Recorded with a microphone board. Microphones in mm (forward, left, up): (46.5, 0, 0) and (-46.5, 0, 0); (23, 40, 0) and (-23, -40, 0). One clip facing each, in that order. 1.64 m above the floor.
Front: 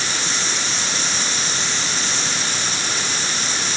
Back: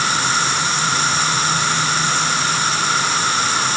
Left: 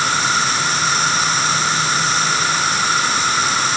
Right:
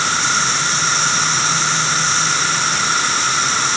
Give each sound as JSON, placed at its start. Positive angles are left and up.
{"t": 0.0, "sound": "an insect", "azimuth_deg": 145}